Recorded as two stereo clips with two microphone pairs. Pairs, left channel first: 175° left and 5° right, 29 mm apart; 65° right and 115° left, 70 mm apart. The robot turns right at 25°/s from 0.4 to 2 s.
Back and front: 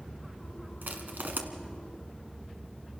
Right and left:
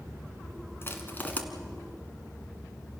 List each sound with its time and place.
0.8 s crushing: 15° right, 1.9 m; by 1.4 s straight ahead, 1.9 m